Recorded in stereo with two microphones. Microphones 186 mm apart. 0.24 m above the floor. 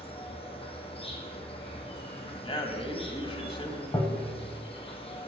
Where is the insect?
30° left (ahead or behind), 1.0 m.